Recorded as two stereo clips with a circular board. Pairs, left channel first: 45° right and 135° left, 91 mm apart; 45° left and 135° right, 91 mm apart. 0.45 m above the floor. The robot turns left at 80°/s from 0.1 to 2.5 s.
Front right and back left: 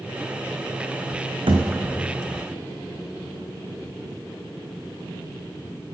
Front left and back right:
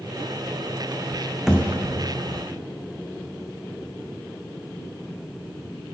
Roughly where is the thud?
Behind left.